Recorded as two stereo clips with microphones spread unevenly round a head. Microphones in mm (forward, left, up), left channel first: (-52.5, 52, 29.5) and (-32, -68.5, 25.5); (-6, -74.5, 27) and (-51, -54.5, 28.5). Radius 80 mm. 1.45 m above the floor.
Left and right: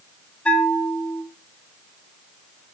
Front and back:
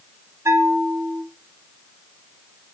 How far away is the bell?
About 1.3 m.